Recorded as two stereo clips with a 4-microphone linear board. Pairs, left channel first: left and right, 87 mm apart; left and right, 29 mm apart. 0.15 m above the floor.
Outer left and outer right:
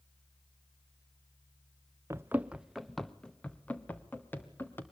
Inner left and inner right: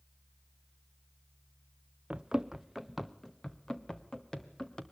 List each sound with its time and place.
2.1 s running footsteps: 35° right (ahead or behind), 0.6 m; by 4.8 s 25° left (ahead or behind), 2 m